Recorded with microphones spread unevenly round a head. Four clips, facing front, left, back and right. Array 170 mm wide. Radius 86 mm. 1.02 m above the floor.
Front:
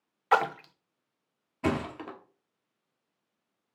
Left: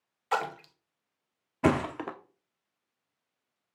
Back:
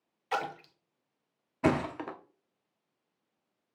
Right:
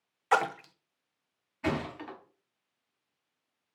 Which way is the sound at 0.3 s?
35° right.